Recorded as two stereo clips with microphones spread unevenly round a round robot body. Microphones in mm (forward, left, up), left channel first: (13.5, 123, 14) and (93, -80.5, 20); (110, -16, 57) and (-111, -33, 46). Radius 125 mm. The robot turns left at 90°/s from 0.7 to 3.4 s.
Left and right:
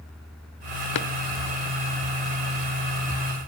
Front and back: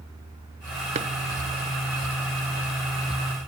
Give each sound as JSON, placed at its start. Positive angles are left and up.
{"t": 0.9, "sound": "a drawer", "azimuth_deg": 120, "distance_m": 0.9}